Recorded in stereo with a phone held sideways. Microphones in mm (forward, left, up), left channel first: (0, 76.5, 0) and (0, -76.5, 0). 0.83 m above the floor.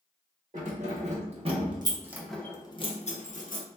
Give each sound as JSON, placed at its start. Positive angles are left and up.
{"t": 0.5, "sound": "keys jangling", "side_deg": -55, "distance_m": 1.2}